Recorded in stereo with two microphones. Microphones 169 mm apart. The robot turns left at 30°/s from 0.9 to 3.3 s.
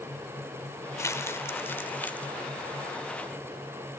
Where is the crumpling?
15° left (ahead or behind), 0.9 m; by 2.3 s 5° left (ahead or behind), 0.9 m.